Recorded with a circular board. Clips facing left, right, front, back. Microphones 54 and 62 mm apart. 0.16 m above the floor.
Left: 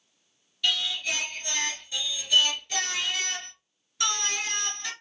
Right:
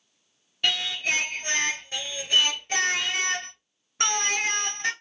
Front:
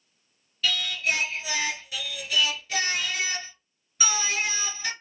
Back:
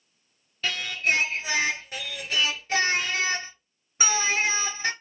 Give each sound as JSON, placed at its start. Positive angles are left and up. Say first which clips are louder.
{"t": 0.6, "sound": "singing", "louder": "right 2 dB, back 1 dB", "azimuth_deg": -130, "distance_m": 0.6}